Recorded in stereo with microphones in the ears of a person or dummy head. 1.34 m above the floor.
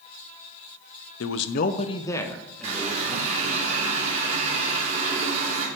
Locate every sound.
1.2 s a man speaking: 75° left (ahead or behind), 0.5 m; by 3.6 s 10° right (ahead or behind), 1.8 m
2.6 s a running tap: 40° right (ahead or behind), 2.5 m